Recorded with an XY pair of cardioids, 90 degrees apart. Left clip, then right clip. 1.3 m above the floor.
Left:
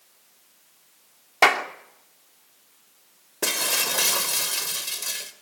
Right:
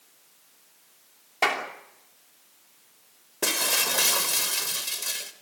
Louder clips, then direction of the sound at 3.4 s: Even; 10° left.